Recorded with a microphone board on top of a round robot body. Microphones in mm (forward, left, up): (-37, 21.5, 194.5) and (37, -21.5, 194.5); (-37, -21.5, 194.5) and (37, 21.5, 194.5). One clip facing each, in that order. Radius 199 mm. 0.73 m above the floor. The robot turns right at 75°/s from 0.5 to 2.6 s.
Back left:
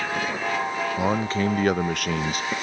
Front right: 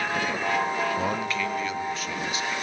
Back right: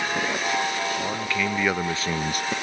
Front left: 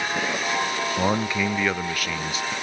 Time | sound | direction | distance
1.0 | a man speaking | 75° left | 0.6 m